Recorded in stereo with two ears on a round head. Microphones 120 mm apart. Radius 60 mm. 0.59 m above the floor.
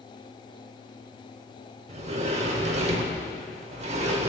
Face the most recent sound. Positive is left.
turn(degrees=-55)  # may be behind; listen again after turning